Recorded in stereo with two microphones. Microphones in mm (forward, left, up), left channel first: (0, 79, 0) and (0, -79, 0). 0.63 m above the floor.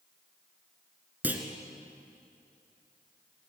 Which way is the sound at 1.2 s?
10° right (ahead or behind).